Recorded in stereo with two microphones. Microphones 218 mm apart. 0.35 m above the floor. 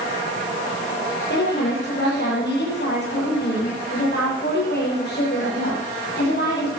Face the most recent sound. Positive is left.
turn(degrees=50)  # may be behind; listen again after turning